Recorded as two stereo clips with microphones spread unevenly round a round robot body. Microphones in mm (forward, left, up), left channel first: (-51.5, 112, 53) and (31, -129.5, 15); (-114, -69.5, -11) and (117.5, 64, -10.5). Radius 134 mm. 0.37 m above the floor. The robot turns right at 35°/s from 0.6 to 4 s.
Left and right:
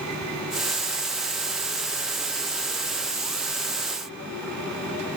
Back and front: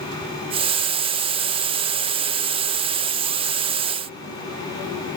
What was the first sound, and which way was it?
Only background noise.